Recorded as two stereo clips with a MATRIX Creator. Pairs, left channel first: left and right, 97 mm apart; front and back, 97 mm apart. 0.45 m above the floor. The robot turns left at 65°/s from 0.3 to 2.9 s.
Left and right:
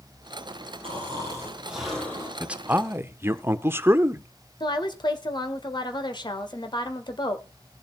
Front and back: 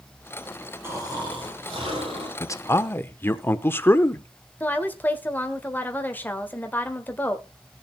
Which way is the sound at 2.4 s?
15° right.